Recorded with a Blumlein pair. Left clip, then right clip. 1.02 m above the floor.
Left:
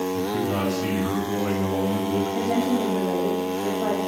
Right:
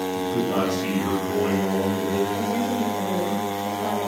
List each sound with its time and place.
0.1 s a man speaking: 10° left, 6 m; by 2.2 s straight ahead, 6 m
2.3 s a woman speaking: 20° left, 2.5 m